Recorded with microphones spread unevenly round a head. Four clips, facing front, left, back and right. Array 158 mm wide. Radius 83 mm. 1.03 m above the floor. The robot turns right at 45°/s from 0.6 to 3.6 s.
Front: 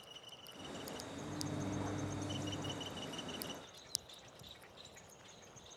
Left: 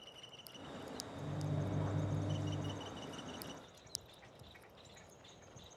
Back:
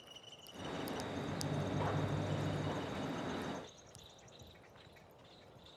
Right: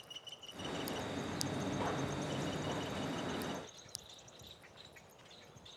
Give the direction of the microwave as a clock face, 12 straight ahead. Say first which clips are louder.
Right 2 dB, front 1 dB; 8 o'clock.